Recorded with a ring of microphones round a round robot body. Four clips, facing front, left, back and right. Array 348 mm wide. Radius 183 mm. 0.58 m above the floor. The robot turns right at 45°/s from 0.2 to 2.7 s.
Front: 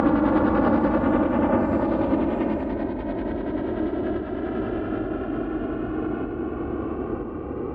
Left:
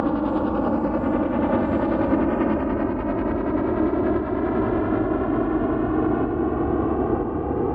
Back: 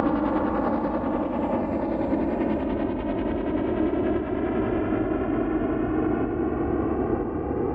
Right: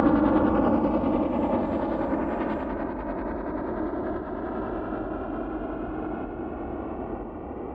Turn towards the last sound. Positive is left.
turn(degrees=110)